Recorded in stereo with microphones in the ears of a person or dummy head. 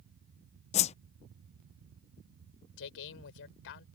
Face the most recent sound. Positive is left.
turn(degrees=65)  # may be behind; listen again after turning